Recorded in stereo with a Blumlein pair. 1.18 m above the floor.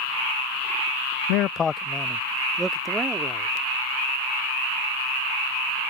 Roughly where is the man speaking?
Ahead left.